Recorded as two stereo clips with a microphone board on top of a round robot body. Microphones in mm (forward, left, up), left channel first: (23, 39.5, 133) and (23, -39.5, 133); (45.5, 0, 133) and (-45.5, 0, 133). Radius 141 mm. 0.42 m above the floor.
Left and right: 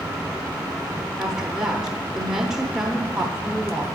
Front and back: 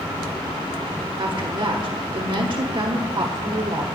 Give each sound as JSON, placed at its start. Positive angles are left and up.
{"t": 1.2, "sound": "a woman speaking", "azimuth_deg": -170, "distance_m": 1.1}